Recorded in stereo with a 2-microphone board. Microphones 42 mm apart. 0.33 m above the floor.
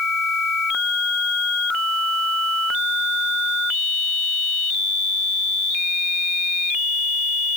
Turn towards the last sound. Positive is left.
No sound to turn to.